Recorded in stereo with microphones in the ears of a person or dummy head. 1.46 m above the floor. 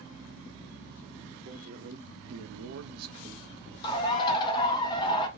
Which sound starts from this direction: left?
A bird, at 3.8 s.